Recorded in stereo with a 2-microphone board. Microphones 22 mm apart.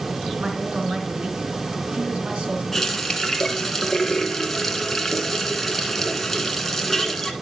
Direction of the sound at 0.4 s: 65° right (ahead or behind).